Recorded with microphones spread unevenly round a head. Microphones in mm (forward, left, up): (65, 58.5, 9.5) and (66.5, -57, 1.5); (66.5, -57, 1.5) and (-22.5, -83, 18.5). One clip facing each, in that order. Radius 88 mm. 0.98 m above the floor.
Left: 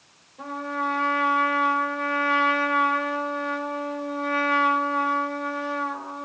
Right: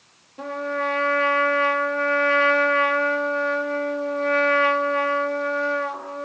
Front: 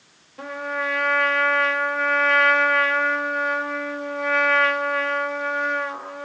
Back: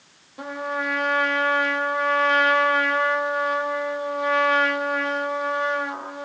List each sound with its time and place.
0.4 s a trumpet: 95° right, 1.0 m